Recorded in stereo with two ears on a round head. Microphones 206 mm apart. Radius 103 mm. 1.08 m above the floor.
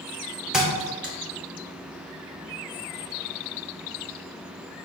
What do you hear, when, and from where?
0.5 s a thud: 5° right (ahead or behind), 0.8 m